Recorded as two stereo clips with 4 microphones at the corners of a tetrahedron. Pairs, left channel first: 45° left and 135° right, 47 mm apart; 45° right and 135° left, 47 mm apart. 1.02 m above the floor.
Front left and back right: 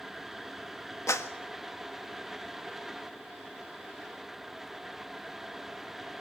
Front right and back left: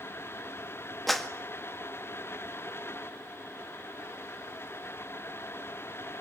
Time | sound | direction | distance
1.1 | a clap | 45° left | 1.6 m